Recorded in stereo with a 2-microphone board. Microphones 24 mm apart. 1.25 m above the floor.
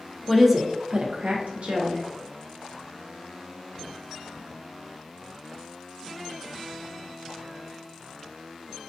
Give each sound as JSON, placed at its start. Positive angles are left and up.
{"t": 0.3, "sound": "a woman speaking", "side_deg": 5, "distance_m": 0.5}